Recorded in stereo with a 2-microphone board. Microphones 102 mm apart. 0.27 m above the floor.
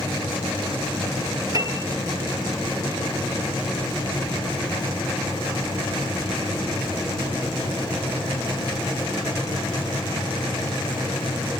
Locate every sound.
1.5 s a piano: 40° right (ahead or behind), 3.5 m